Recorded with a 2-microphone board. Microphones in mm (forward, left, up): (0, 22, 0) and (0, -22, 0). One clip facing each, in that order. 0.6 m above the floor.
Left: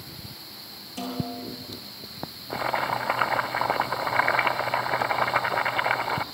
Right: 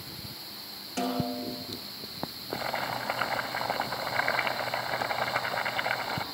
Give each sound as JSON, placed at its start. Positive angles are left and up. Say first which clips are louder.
{"t": 1.0, "sound": "a snare drum", "louder": "right 2 dB", "side_deg": -65, "distance_m": 7.0}
{"t": 2.5, "sound": "boiling", "louder": "left 6 dB", "side_deg": 25, "distance_m": 1.1}